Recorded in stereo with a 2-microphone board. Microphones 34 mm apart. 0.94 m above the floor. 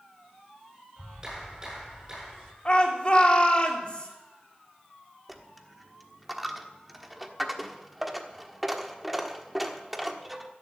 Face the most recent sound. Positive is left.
turn(degrees=-5)  # may be behind; listen again after turning